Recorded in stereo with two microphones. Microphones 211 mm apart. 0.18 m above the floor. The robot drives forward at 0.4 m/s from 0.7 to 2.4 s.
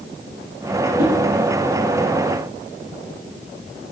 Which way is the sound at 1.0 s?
40° right (ahead or behind).